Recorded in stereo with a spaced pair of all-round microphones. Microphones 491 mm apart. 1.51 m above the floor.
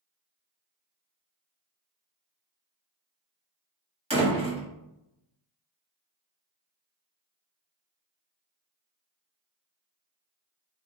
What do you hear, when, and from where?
4.1 s a door slam: 10° right (ahead or behind), 1.3 m